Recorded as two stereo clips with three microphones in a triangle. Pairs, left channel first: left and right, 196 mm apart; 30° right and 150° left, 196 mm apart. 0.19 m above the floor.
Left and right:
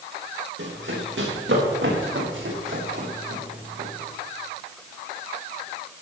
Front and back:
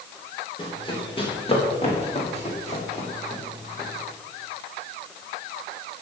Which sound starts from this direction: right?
Running footsteps, at 0.6 s.